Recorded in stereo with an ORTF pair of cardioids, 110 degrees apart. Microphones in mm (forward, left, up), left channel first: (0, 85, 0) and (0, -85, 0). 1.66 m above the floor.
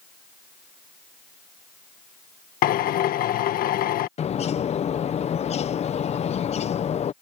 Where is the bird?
40° left.